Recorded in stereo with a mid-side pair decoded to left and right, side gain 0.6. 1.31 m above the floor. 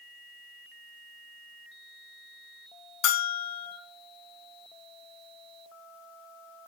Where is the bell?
70° left, 1.8 m.